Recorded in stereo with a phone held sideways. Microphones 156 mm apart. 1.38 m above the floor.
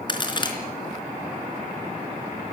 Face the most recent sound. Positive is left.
turn(degrees=30)  # may be behind; listen again after turning